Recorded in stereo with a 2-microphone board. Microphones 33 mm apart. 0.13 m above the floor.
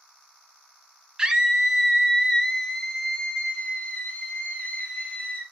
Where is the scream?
20° right (ahead or behind), 1.2 m; by 5.4 s 35° left (ahead or behind), 3 m.